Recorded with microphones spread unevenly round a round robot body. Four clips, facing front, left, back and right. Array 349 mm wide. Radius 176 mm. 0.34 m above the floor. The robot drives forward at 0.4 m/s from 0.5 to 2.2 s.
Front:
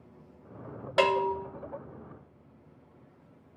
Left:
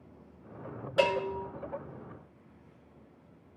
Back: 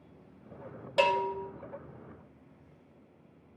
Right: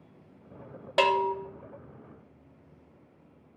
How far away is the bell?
About 0.6 m.